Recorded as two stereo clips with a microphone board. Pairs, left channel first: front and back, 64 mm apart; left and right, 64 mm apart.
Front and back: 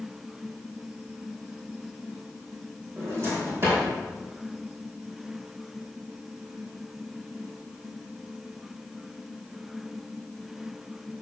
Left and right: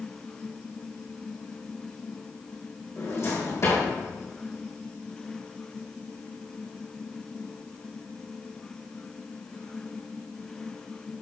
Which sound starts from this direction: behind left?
A drawer, at 3.0 s.